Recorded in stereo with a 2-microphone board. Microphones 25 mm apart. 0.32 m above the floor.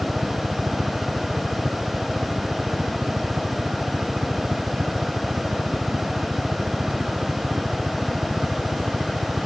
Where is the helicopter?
60° right (ahead or behind).